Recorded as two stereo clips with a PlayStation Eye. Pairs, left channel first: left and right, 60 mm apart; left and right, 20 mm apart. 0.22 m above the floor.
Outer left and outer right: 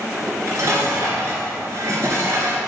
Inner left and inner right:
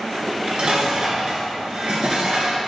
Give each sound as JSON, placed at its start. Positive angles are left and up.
{"t": 0.1, "sound": "dishes clattering", "side_deg": -55, "distance_m": 2.5}